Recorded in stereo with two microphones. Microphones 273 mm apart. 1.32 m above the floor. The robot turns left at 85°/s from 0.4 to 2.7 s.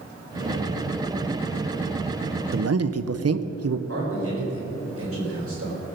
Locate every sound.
2.5 s a man speaking: 45° right (ahead or behind), 0.7 m; by 3.8 s 60° right (ahead or behind), 0.7 m
3.9 s a man speaking: 55° right (ahead or behind), 4.5 m